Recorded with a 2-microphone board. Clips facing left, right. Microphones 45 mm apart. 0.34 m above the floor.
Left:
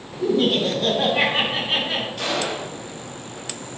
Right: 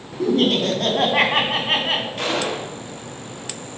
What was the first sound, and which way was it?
Laughter, 70° right (ahead or behind).